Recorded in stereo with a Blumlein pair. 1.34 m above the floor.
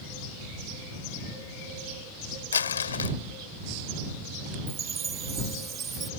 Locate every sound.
2.5 s crumpling: 70° left
4.7 s a chime: 20° right